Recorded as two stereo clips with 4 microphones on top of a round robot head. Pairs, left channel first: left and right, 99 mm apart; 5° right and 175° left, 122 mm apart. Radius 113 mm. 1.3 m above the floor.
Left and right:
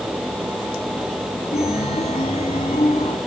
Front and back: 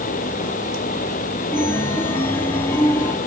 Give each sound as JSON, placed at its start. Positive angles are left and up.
{"t": 1.5, "sound": "a chime", "azimuth_deg": 60, "distance_m": 1.0}